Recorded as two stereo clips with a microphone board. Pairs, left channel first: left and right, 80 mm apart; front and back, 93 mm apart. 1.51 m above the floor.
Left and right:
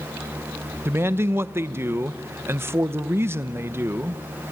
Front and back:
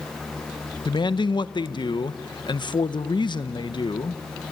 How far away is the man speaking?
About 0.9 m.